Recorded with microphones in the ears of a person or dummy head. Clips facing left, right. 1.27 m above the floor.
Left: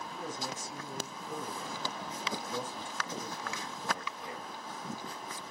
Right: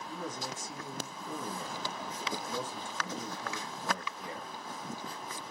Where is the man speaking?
60° right (ahead or behind), 1.6 m.